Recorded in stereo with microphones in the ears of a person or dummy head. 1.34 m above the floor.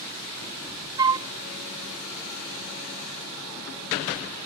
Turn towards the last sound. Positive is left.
turn(degrees=-20)  # may be behind; listen again after turning